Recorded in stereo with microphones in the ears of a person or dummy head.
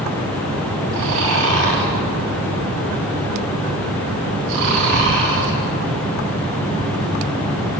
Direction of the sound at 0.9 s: 70° right (ahead or behind).